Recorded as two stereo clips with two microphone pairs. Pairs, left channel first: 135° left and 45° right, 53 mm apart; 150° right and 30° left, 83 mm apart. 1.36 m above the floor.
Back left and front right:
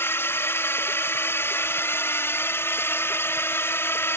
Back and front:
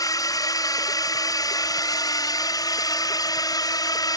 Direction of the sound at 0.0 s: 175° left.